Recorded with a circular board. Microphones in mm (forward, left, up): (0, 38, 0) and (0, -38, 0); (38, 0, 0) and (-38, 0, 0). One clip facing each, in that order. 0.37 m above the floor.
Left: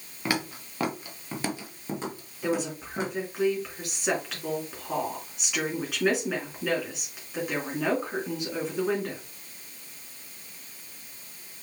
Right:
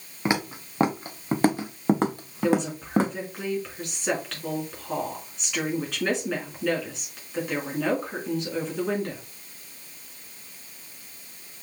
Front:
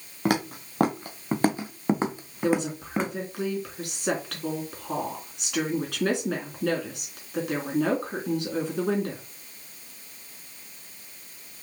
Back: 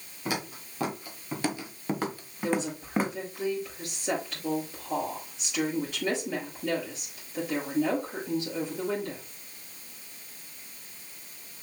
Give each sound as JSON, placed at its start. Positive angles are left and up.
{"t": 0.2, "sound": "footsteps", "azimuth_deg": -25, "distance_m": 2.0}
{"t": 2.4, "sound": "a woman speaking", "azimuth_deg": 5, "distance_m": 4.0}